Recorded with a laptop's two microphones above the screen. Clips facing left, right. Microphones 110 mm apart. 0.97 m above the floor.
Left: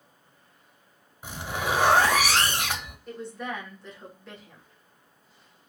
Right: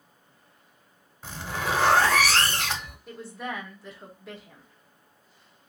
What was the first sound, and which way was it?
A zipper, 15° left (ahead or behind).